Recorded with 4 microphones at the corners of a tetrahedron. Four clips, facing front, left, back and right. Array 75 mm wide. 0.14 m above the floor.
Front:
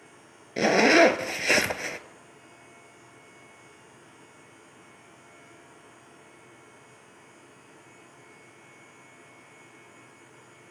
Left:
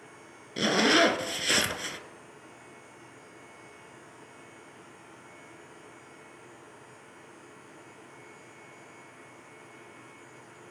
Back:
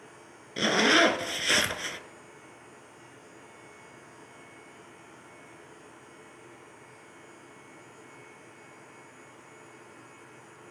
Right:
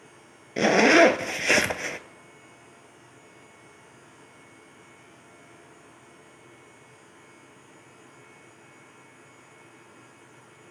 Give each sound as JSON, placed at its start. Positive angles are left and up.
{"t": 0.6, "sound": "a zipper", "azimuth_deg": -55, "distance_m": 0.8}